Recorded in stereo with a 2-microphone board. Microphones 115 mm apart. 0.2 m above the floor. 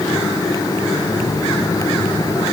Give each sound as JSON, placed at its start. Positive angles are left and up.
{"t": 0.9, "sound": "a phone buzzing", "side_deg": 55, "distance_m": 7.5}